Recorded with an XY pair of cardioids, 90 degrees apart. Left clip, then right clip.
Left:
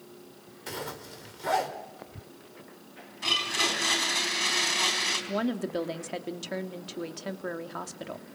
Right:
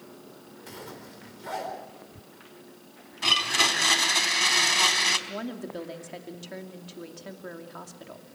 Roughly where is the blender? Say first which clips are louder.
Right 4 dB; ahead right.